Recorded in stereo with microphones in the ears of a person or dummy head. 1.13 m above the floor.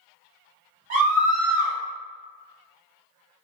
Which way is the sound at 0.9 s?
30° right (ahead or behind).